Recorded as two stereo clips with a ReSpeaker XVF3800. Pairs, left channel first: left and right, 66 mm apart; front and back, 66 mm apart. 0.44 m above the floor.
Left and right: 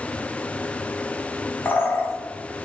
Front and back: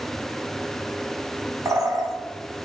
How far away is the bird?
About 0.6 m.